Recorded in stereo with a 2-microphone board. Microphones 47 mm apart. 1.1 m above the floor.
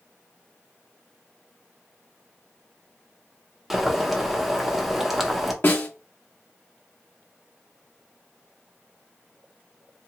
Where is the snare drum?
40° left (ahead or behind), 0.8 m.